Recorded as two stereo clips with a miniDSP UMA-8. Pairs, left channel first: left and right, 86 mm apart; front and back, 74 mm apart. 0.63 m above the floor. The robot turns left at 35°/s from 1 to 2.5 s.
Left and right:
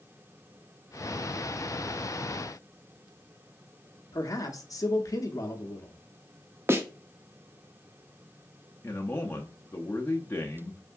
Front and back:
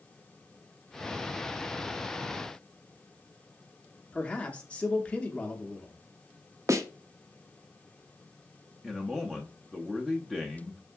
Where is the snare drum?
145° right, 0.5 m.